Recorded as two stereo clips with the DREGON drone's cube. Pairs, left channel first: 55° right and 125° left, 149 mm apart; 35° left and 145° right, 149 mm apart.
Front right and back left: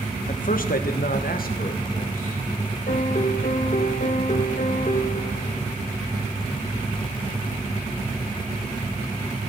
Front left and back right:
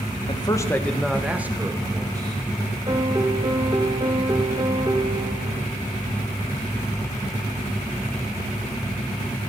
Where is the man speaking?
20° right, 1.3 m; by 2.4 s 85° right, 2.5 m.